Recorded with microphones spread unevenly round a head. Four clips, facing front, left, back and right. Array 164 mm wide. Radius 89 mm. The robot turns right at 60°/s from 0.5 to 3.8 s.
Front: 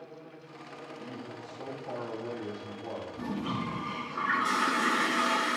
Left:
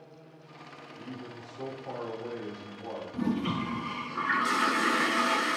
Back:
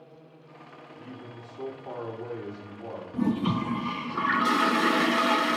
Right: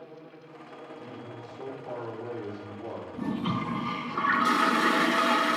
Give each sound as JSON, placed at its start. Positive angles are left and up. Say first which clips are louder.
{"t": 1.0, "sound": "a man speaking", "louder": "left 3 dB, even", "azimuth_deg": 120, "distance_m": 4.0}
{"t": 3.1, "sound": "a toilet flushing", "louder": "left 1 dB, back 10 dB", "azimuth_deg": 165, "distance_m": 0.8}